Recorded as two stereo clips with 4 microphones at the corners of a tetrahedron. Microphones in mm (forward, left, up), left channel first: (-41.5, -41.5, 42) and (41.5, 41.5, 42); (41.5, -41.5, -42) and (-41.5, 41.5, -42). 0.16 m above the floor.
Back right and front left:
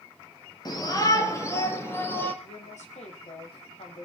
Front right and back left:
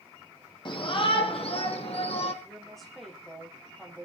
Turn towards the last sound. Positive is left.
turn(degrees=-130)